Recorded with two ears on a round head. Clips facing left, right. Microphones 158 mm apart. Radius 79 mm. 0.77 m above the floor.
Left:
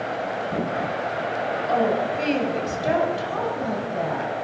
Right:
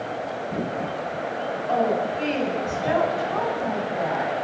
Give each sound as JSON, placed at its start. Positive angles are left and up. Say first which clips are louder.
{"t": 1.7, "sound": "a woman speaking", "louder": "even", "side_deg": 50, "distance_m": 6.0}